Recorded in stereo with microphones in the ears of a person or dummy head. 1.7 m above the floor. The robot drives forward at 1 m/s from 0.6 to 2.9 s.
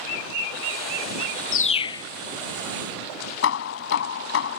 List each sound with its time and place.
1.5 s a bird: 45° left (ahead or behind); by 2.1 s 25° left (ahead or behind)
3.4 s hammering: 70° left (ahead or behind)